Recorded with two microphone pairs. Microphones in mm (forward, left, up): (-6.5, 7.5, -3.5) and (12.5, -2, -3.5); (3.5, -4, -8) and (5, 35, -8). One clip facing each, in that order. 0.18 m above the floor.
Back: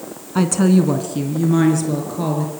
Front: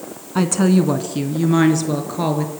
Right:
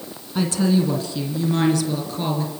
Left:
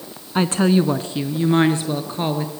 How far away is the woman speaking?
About 1.6 m.